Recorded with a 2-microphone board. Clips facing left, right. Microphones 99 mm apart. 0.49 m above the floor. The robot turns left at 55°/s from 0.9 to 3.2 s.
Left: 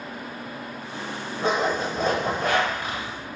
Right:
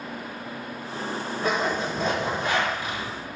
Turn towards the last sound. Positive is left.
turn(degrees=45)